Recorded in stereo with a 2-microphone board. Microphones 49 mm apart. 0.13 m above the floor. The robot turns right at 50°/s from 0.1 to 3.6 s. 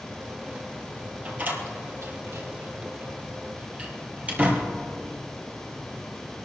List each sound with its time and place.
1.2 s a door slam: 30° right (ahead or behind), 3 m